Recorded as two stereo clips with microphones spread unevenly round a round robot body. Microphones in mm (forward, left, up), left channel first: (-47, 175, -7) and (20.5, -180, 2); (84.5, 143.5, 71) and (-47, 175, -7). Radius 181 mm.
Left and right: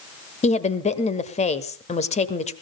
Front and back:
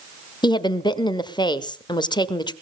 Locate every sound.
0.4 s a woman speaking: 80° left, 1.3 m